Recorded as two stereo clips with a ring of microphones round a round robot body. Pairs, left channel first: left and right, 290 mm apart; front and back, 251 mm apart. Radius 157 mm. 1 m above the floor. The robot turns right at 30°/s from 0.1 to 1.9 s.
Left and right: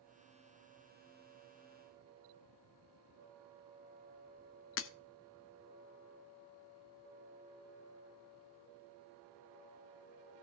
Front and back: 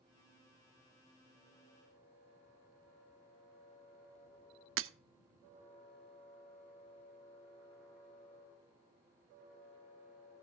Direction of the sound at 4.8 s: 140° left.